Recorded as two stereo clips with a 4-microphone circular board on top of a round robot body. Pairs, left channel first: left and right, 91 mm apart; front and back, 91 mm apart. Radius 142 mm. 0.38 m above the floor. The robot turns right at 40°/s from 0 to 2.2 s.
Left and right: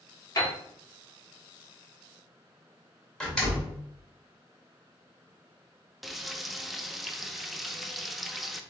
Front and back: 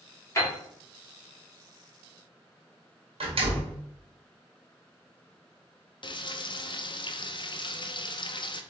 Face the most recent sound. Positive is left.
turn(degrees=0)